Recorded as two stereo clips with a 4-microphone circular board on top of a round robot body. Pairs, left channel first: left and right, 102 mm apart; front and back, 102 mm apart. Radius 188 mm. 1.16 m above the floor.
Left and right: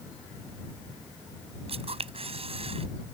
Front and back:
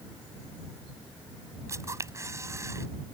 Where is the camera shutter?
115° right.